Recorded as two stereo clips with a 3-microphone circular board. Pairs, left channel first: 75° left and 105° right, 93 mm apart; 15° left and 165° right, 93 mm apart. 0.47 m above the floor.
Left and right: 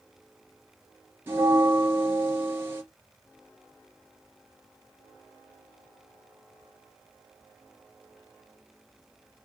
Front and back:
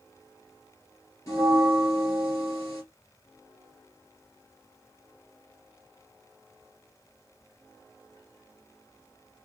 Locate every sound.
1.3 s a bell: 40° right, 1.5 m